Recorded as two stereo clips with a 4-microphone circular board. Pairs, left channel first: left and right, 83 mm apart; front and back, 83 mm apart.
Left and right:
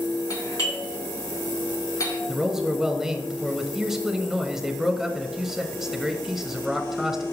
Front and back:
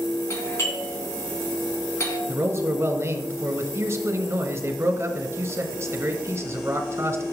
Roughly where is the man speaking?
Behind.